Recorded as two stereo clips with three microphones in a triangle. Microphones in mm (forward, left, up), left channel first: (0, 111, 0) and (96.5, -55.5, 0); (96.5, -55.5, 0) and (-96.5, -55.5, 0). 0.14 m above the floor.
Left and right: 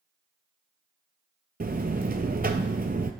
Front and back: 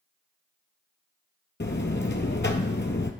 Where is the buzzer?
20° right, 0.6 m.